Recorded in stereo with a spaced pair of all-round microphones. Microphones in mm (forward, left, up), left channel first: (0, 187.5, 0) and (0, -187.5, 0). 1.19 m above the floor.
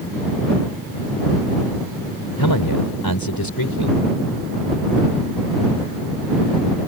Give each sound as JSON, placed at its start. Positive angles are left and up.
{"t": 2.4, "sound": "a man speaking", "side_deg": 65}